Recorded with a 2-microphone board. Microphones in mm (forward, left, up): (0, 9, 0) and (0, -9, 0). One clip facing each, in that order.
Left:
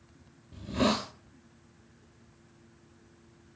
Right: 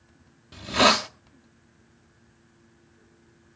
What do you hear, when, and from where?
0.5 s a hiss: 85° right, 0.6 m